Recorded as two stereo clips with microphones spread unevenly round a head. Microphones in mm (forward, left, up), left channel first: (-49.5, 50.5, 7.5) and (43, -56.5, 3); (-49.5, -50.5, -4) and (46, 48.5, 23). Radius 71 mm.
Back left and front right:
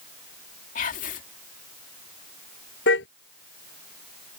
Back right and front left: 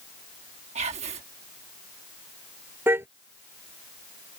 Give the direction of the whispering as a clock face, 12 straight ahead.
9 o'clock.